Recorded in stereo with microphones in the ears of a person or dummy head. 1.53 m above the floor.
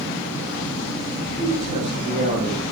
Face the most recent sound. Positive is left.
turn(degrees=-40)  # may be behind; listen again after turning